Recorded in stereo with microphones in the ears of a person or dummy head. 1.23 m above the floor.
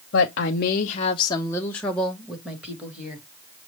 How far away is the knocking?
I don't hear knocking.